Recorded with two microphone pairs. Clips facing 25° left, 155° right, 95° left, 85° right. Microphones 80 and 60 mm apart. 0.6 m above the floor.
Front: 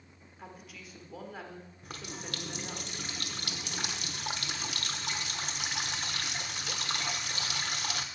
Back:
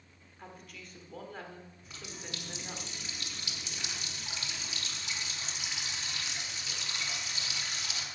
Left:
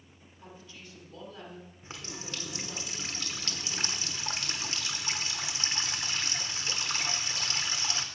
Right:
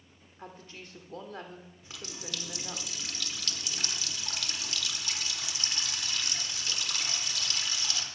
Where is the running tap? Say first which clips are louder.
Front 5 dB, left 1 dB; 40° left, 0.9 m.